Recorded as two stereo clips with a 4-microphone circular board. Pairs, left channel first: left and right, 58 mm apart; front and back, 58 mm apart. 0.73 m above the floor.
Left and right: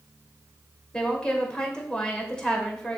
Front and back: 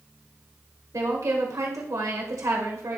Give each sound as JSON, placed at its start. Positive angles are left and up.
{"t": 0.9, "sound": "a woman speaking", "azimuth_deg": 165, "distance_m": 2.5}